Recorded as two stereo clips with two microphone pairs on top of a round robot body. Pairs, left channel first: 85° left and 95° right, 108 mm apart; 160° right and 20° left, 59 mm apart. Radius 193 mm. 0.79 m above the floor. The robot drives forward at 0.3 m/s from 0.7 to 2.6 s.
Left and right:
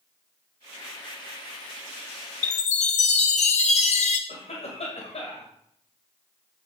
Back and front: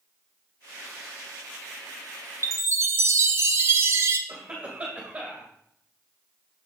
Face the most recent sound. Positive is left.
turn(degrees=90)